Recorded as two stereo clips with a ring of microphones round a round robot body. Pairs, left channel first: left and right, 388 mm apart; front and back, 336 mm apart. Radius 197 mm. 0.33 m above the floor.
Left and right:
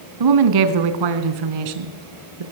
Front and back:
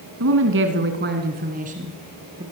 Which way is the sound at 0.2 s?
125° right.